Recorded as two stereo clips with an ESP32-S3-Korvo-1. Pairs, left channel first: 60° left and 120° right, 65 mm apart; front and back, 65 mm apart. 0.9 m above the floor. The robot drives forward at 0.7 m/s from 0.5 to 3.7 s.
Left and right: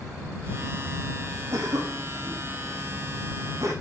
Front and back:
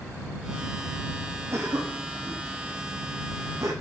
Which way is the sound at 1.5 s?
135° right.